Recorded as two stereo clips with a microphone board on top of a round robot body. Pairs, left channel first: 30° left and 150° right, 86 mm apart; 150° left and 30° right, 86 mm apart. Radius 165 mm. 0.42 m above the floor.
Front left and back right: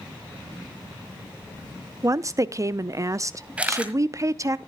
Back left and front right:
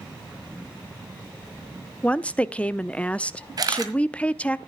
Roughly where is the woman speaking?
Behind right.